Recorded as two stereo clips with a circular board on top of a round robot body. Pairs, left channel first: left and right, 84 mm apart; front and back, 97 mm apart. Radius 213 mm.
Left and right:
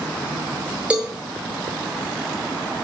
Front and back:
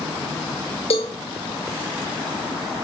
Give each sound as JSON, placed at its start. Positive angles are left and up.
{"t": 0.9, "sound": "a cowbell", "azimuth_deg": -15, "distance_m": 0.8}